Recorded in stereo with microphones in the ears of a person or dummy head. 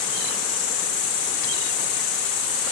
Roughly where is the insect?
Left.